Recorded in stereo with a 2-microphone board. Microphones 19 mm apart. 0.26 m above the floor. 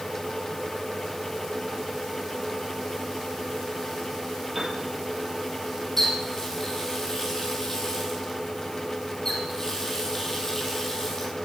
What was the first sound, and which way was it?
A piano, 15° right (ahead or behind).